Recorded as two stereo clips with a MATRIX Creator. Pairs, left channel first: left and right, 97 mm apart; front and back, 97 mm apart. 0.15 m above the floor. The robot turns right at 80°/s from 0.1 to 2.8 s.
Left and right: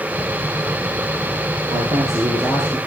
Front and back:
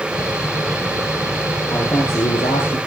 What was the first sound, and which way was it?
A man speaking, 70° right.